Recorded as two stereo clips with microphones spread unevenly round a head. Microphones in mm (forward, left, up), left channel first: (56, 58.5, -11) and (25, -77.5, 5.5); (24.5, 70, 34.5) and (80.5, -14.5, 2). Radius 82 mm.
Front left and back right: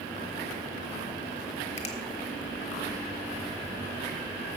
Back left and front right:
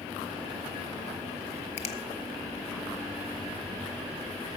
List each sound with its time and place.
1.8 s a finger snap: 110° left, 1.1 m